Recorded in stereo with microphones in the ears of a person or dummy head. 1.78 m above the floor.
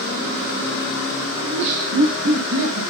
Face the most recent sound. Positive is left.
turn(degrees=-85)